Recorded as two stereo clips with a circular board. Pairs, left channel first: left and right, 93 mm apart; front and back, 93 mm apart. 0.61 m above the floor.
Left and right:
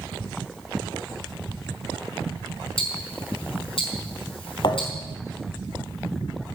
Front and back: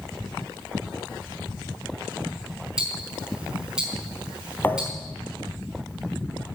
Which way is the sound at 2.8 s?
100° left.